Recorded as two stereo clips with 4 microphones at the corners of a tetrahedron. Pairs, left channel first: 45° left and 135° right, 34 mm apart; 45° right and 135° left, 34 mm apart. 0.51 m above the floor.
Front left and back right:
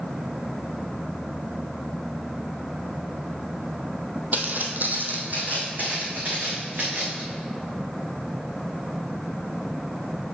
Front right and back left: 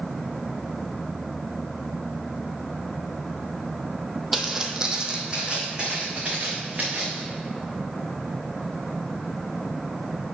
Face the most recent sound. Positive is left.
turn(degrees=-170)